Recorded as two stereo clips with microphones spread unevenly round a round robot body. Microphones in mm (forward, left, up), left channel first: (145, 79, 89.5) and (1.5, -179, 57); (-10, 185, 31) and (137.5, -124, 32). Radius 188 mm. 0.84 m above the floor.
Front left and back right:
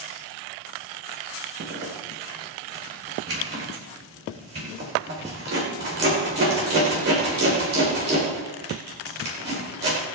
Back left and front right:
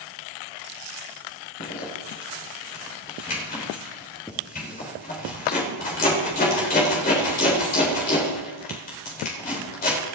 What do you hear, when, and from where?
1.6 s a zipper: straight behind, 3.5 m